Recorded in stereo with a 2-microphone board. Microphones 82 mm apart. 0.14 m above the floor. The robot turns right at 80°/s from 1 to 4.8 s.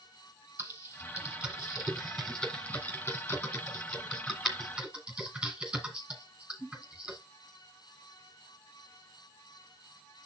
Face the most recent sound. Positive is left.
turn(degrees=-15)  # may be behind; listen again after turning